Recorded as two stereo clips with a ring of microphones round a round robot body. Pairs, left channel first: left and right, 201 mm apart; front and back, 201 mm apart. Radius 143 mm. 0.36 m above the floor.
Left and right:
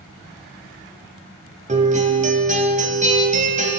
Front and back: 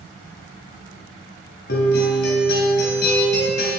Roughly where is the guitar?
Ahead right.